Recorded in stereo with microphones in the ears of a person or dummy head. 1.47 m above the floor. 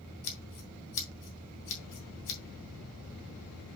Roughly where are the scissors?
Left.